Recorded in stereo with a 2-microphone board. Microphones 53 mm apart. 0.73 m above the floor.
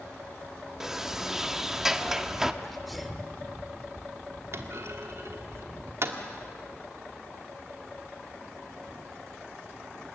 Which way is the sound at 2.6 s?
Centre (ahead or behind).